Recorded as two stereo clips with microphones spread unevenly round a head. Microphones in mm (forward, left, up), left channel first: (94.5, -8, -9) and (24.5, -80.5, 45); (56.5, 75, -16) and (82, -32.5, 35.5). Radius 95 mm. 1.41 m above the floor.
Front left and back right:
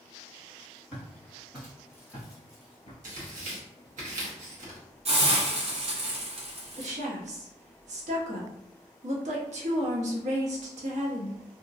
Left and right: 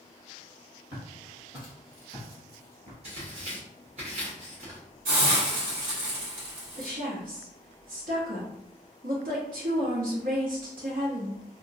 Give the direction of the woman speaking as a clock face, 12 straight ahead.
4 o'clock.